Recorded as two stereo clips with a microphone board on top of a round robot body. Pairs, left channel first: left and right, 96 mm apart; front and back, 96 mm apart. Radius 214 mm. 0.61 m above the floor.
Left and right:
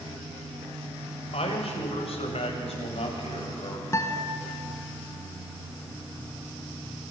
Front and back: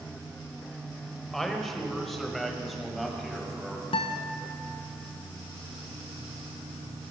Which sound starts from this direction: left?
A man speaking, at 1.3 s.